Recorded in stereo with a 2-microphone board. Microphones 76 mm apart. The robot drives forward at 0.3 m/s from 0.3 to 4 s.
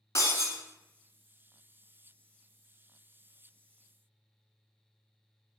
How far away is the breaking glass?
About 1.1 m.